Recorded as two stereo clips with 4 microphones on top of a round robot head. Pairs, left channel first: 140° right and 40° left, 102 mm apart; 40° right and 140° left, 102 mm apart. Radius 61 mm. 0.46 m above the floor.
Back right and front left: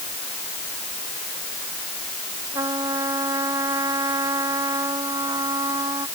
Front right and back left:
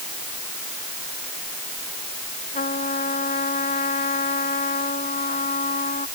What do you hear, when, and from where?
2.5 s a trumpet: 20° right